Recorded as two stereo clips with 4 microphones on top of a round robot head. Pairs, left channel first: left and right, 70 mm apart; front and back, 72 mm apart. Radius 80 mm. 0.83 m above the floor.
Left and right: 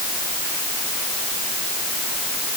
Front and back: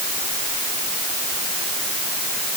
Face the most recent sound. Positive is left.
No sound to turn to.